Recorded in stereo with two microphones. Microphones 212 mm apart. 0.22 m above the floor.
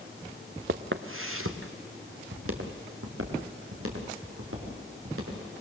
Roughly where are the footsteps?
Right.